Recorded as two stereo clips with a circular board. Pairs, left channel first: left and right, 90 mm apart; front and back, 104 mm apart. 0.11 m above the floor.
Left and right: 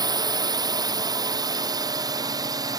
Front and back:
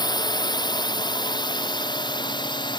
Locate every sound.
0.0 s a drone: 45° right